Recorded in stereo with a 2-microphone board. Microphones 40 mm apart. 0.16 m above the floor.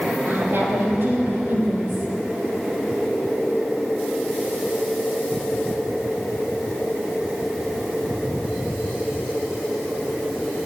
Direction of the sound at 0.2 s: 60° right (ahead or behind).